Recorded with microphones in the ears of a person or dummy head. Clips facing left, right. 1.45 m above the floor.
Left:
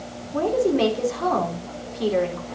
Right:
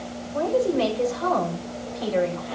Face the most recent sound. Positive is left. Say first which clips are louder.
# left 2 dB
turn(degrees=65)  # may be behind; listen again after turning